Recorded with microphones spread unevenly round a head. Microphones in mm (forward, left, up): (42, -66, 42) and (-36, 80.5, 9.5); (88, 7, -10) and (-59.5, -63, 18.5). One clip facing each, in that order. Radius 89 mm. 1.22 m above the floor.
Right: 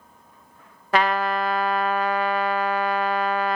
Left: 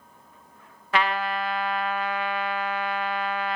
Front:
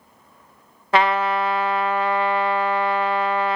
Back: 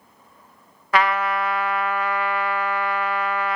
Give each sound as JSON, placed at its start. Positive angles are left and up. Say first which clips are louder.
{"t": 0.9, "sound": "a trumpet", "louder": "right 4 dB, front 2 dB", "azimuth_deg": -40, "distance_m": 0.5}